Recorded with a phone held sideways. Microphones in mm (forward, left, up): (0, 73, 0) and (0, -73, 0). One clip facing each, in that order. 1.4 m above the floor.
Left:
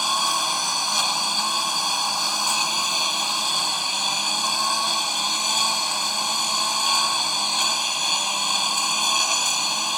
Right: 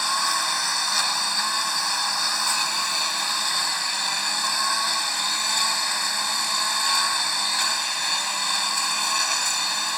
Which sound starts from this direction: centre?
A lawn mower, at 0.0 s.